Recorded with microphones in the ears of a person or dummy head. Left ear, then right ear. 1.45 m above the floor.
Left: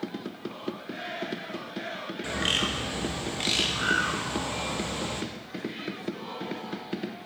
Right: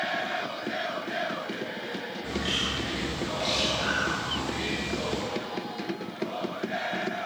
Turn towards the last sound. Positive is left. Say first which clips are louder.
# left 3 dB
turn(degrees=25)  # may be behind; listen again after turning